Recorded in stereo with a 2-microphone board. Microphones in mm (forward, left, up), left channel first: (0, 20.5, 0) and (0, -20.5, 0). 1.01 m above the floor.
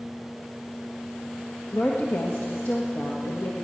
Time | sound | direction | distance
1.7 | a woman speaking | 45° left (ahead or behind) | 1.1 m